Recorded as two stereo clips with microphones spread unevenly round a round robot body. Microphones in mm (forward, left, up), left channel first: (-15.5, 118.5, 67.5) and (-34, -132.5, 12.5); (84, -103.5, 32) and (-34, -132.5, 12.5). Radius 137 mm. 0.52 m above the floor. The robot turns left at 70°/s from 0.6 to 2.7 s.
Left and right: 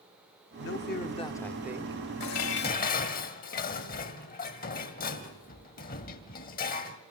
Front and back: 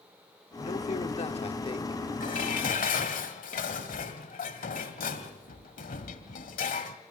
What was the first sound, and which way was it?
A man speaking, 55° left.